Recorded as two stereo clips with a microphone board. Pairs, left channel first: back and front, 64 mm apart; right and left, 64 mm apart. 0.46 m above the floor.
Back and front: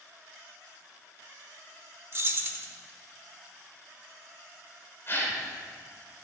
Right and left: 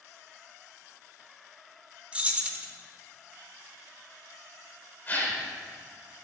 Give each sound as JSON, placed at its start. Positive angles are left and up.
{"t": 2.1, "sound": "keys jangling", "azimuth_deg": 25, "distance_m": 0.8}
{"t": 5.1, "sound": "a gasp", "azimuth_deg": -140, "distance_m": 1.6}